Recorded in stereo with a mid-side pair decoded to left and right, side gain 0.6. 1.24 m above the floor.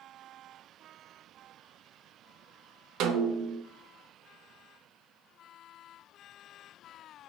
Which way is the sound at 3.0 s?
65° right.